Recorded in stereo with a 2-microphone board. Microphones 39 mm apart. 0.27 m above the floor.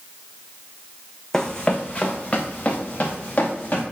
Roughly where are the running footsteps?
Centre.